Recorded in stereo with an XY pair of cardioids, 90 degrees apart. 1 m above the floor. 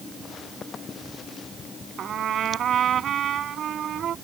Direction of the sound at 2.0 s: 65° right.